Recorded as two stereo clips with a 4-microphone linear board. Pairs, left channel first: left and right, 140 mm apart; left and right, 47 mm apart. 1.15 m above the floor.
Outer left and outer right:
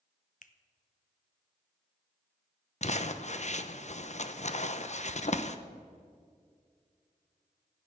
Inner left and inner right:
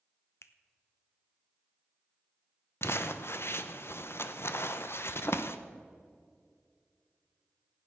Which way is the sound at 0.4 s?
65° left (ahead or behind).